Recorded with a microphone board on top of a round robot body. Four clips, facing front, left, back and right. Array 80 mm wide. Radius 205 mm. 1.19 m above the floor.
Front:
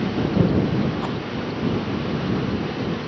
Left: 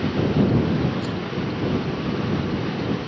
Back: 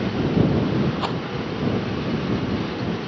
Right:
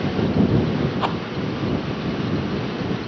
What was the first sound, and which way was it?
A rattle, 105° right.